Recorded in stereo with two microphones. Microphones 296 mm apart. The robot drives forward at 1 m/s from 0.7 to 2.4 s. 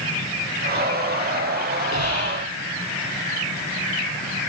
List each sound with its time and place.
1.9 s whispering: 60° left (ahead or behind), 6.5 m